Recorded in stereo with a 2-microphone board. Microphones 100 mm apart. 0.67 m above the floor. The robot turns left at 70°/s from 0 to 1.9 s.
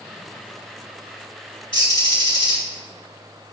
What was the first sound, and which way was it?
A bird, 60° left (ahead or behind).